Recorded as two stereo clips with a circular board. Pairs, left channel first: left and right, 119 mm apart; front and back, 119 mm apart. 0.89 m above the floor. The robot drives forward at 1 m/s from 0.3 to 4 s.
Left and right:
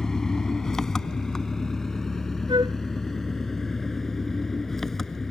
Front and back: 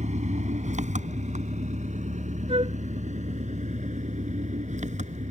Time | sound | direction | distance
0.0 | an engine running | 175° left | ?
2.5 | a flute | 140° right | ?